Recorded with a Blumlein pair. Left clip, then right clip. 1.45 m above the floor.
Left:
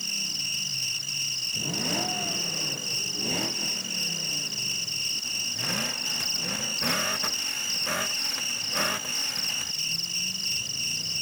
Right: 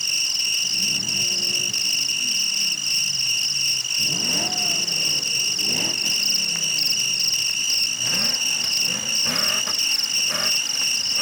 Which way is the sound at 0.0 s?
20° right.